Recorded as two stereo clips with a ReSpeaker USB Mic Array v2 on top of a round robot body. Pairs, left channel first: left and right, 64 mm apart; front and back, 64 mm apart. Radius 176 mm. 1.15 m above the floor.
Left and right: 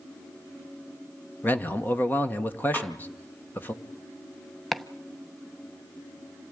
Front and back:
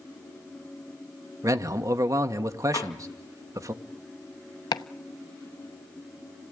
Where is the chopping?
Straight ahead, 0.7 m.